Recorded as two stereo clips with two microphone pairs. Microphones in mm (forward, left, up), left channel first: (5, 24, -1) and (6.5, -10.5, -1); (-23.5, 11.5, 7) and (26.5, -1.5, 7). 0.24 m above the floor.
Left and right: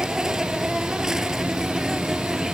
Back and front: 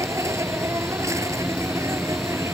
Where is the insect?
10° right.